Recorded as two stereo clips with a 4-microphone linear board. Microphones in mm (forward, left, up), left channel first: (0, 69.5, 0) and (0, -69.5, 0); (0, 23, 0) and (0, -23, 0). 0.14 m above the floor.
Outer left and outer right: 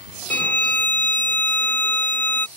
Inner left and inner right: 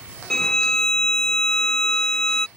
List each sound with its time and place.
0.3 s a violin: 15° left (ahead or behind)